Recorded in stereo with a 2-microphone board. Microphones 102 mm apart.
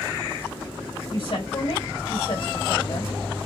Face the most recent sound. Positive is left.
turn(degrees=75)  # may be behind; listen again after turning